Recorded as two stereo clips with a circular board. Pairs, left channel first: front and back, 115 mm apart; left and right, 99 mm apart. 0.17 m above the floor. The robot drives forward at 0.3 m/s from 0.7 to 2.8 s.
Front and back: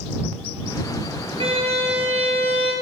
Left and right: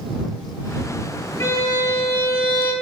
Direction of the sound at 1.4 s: 150° left.